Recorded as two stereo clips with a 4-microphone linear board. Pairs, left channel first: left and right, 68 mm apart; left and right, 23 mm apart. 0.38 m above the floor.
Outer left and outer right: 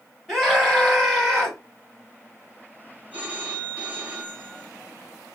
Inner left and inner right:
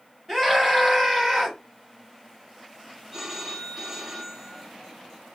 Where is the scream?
Centre (ahead or behind), 3 m.